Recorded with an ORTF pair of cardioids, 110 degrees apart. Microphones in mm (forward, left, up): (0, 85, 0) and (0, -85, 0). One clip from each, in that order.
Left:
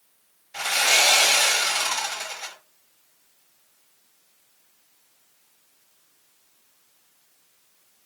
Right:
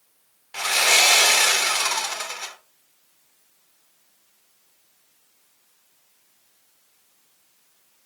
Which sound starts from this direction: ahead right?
Sawing, at 0.5 s.